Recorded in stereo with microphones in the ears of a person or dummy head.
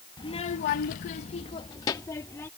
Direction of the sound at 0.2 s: 25° left (ahead or behind).